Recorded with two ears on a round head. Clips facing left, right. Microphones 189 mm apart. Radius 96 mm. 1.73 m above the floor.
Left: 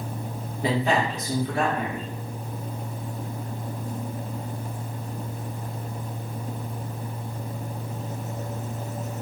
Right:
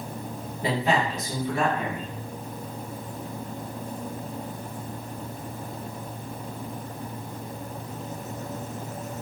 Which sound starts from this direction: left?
A man speaking, at 0.6 s.